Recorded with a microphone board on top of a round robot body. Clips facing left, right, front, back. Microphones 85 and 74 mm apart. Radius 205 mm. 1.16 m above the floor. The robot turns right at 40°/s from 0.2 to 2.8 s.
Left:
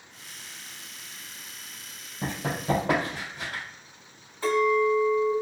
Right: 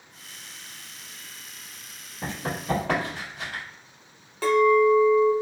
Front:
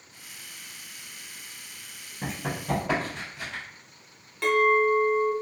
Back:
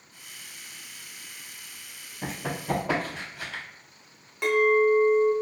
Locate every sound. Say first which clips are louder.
2.2 s running footsteps: left 1 dB, even; 75° left, 1.5 m; by 3.6 s 160° left, 1.5 m
4.4 s a clink: right 4 dB, back 1 dB; 105° right, 0.7 m